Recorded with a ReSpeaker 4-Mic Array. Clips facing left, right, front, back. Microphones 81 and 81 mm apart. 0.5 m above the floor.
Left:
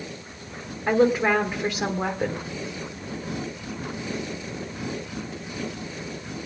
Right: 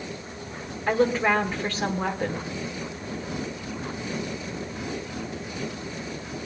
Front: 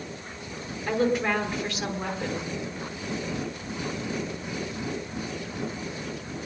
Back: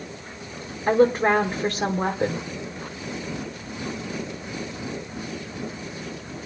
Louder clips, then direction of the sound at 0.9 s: Left 2 dB, back 7 dB; 160° left.